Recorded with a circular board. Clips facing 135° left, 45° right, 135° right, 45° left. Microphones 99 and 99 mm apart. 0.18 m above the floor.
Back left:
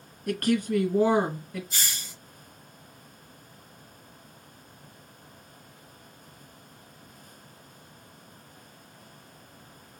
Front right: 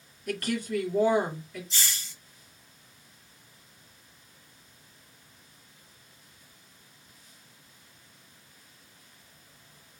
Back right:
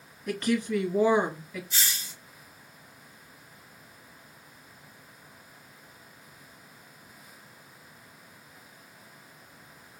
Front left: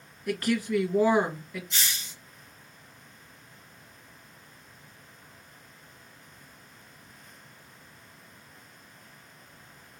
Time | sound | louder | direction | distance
0.3 | a woman speaking | back left 5 dB, even | 130° left | 2.5 m
1.7 | a hiss | even, even | 140° left | 2 m